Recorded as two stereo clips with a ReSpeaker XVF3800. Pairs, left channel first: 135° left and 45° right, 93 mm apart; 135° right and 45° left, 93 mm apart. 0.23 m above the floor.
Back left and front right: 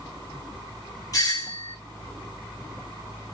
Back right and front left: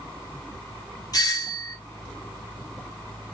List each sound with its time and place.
1.1 s a doorbell: 175° right, 3.5 m